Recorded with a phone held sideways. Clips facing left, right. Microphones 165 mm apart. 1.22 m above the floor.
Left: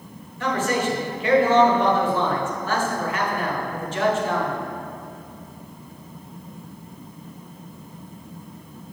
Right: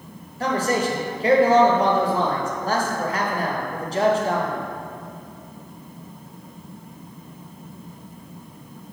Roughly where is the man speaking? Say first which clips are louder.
Right 1 dB; right.